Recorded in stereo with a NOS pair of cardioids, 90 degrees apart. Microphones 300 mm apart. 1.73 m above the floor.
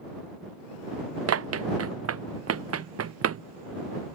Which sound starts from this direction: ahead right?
Running footsteps, at 1.3 s.